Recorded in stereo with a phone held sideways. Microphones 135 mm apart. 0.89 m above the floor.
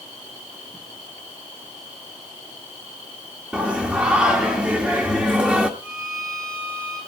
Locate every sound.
3.5 s singing: 10° right (ahead or behind), 1.5 m
5.8 s a violin: 20° right (ahead or behind), 9.5 m